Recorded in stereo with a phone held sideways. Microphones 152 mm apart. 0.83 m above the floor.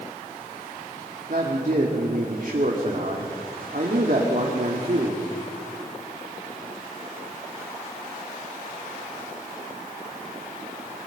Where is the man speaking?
60° right (ahead or behind), 2.5 m.